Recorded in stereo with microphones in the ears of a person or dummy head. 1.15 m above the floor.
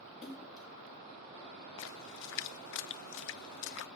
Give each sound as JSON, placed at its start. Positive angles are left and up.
{"t": 0.2, "sound": "a splash", "side_deg": 0, "distance_m": 3.5}
{"t": 1.8, "sound": "a splash", "side_deg": 70, "distance_m": 0.6}